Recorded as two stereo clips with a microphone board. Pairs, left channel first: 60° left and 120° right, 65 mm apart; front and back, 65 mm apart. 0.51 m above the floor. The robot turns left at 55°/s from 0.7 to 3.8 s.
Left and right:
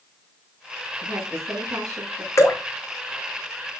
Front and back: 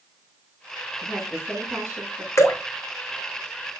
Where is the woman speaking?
80° right, 5 m; by 2.3 s 150° right, 5 m.